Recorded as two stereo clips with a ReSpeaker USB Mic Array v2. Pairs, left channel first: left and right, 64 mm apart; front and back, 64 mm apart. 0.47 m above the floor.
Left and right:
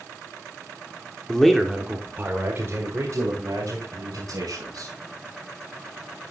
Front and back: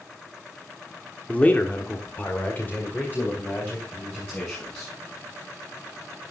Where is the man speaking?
30° left, 1.2 m; by 4.9 s 65° right, 4 m.